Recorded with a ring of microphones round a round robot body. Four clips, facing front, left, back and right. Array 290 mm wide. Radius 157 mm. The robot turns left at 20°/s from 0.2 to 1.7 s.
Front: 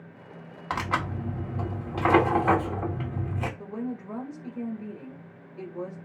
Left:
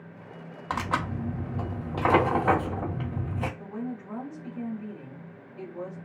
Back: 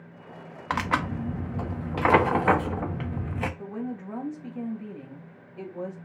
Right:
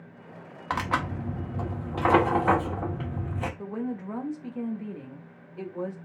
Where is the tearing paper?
165° right, 1.0 m; by 3.5 s 175° left, 1.0 m.